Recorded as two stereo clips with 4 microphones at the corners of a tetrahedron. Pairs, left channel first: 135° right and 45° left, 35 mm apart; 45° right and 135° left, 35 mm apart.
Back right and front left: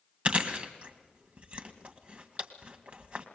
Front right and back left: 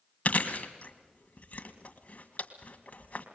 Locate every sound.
0.2 s chewing: 5° right, 1.8 m